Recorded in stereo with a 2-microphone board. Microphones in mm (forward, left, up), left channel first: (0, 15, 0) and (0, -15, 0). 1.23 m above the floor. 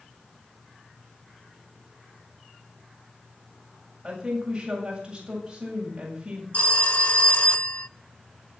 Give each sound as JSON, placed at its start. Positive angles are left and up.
{"t": 4.0, "sound": "a woman speaking", "side_deg": -20, "distance_m": 7.5}
{"t": 6.5, "sound": "a phone ringing", "side_deg": 45, "distance_m": 0.5}